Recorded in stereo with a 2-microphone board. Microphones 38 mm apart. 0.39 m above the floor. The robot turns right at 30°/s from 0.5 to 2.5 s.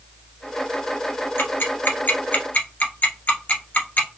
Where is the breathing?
I don't hear breathing.